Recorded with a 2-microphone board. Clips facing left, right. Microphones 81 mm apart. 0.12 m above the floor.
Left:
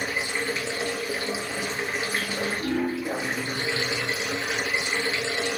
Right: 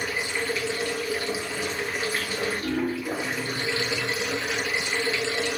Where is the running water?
25° left (ahead or behind), 0.9 m.